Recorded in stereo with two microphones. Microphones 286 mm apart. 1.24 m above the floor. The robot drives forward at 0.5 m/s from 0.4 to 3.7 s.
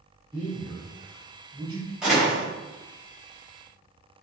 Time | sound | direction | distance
0.3 | a man speaking | 10° right (ahead or behind) | 0.8 m
2.0 | a door slam | centre (ahead or behind) | 1.6 m